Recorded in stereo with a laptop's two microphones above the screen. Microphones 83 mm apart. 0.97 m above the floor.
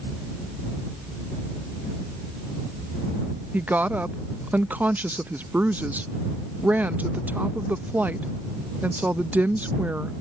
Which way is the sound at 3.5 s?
20° right (ahead or behind).